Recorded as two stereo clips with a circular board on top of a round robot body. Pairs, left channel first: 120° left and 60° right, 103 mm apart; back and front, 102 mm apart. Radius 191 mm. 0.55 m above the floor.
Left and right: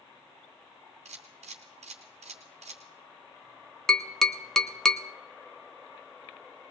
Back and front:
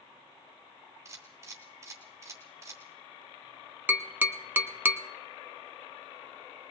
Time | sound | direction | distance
1.1 | a camera shutter | 60° right | 0.6 m
3.9 | tapping | 40° left | 1.1 m